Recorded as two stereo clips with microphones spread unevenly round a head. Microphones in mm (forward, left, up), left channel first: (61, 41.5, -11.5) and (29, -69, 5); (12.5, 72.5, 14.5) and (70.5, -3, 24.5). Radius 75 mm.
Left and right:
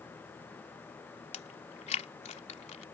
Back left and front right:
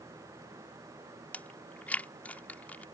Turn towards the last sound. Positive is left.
turn(degrees=50)